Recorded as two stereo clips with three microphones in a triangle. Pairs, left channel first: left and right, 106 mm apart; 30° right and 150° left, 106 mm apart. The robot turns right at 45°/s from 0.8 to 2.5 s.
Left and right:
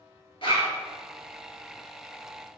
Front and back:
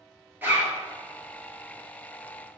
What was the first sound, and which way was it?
A zipper, 85° left.